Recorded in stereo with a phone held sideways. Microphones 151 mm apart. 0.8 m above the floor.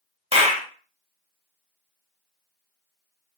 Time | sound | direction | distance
0.3 | a clap | 40° right (ahead or behind) | 1.2 m